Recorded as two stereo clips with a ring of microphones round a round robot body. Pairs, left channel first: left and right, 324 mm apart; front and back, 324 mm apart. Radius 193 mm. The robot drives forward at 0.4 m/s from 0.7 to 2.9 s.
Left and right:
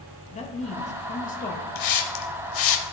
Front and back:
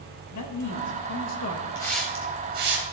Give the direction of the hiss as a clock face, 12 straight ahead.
9 o'clock.